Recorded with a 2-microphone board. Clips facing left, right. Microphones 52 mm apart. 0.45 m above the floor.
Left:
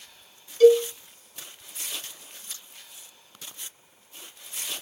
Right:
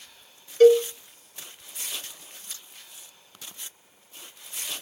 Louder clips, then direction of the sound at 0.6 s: Even; 45° right (ahead or behind).